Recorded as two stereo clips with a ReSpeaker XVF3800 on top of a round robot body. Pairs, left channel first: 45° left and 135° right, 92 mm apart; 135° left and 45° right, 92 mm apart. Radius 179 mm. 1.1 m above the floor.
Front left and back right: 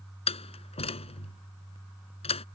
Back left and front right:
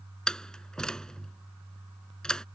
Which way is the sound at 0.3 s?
50° left.